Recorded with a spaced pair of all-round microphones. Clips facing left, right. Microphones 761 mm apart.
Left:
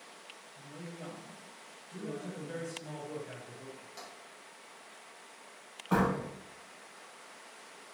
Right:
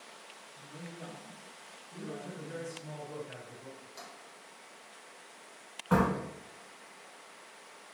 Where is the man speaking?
85° left, 0.8 m.